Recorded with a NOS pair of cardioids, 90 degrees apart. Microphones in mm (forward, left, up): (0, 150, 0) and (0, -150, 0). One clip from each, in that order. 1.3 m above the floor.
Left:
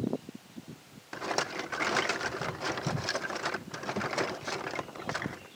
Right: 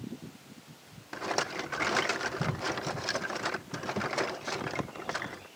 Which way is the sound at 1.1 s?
Straight ahead.